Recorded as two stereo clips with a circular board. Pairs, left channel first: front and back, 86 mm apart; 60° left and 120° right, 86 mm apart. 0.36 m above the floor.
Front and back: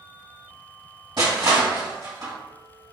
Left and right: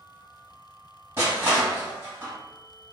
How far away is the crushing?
About 2.0 m.